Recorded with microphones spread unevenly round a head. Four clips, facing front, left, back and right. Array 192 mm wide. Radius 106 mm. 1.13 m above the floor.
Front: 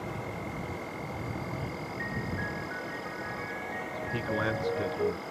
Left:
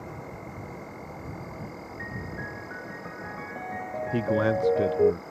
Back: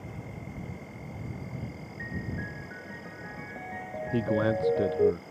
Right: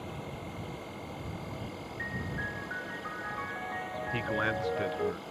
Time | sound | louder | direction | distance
0.0 | an insect | left 1 dB, front 6 dB | 15° left | ?
2.0 | a piano | even, even | 120° left | ?
4.1 | a man speaking | left 8 dB, back 5 dB | 115° left | ?